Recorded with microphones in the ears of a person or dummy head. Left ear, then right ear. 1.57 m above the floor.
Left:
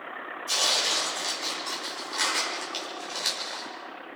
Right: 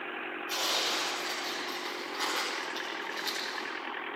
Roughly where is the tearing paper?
Left.